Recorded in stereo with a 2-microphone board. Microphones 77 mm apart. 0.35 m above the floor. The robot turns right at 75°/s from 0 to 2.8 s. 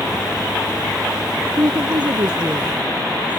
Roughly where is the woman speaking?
Behind right.